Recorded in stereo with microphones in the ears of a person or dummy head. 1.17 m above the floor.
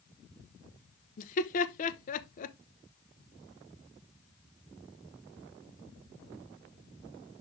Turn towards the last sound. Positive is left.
turn(degrees=45)  # may be behind; listen again after turning